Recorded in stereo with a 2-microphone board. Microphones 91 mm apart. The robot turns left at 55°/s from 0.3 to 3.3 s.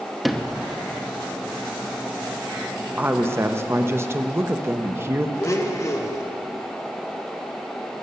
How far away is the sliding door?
About 0.8 m.